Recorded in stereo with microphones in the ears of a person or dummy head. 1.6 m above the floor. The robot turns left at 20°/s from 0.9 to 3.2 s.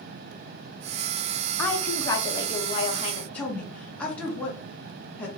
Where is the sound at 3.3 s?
10° left (ahead or behind), 1.5 m.